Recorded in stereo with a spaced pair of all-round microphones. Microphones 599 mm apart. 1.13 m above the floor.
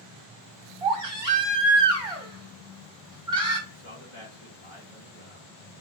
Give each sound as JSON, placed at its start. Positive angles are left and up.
{"t": 0.8, "sound": "a baby crying", "side_deg": -60, "distance_m": 1.9}
{"t": 3.7, "sound": "a man speaking", "side_deg": 55, "distance_m": 2.5}